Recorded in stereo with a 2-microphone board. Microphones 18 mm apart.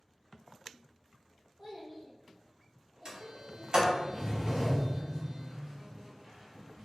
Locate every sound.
1.6 s a child speaking: 5° left (ahead or behind), 1.5 m
3.0 s a sliding door: 40° right (ahead or behind), 0.9 m